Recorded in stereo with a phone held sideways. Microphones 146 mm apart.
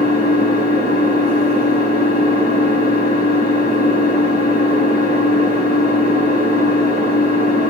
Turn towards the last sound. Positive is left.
turn(degrees=-45)  # may be behind; listen again after turning